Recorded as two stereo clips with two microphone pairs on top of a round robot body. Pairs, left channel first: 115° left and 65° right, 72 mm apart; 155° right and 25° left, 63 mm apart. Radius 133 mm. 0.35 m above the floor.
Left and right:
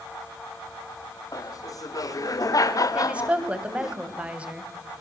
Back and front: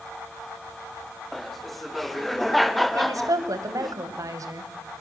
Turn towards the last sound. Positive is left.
turn(degrees=10)